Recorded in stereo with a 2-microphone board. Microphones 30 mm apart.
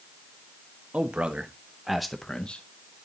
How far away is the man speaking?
About 1.4 m.